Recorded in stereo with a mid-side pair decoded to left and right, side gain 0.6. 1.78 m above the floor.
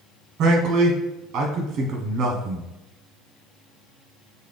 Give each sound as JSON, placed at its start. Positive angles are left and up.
{"t": 0.4, "sound": "a man speaking", "azimuth_deg": -50, "distance_m": 0.9}